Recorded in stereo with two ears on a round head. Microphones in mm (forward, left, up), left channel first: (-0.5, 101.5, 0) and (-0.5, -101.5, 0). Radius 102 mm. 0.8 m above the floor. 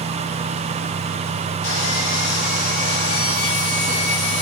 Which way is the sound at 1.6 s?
70° left (ahead or behind).